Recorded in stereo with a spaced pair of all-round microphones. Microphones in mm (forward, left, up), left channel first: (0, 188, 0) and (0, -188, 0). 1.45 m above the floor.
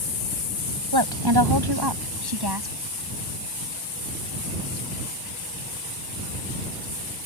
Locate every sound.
0.9 s a woman speaking: 75° right (ahead or behind); by 2.7 s 80° right